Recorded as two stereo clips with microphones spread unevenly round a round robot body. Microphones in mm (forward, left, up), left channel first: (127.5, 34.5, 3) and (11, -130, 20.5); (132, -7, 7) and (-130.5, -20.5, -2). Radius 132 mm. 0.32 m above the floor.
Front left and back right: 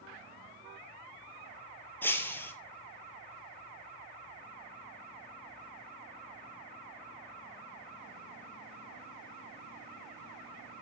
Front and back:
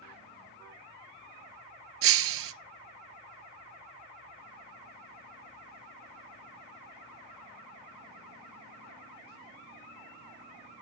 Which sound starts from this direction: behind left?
Breaking glass, at 2.0 s.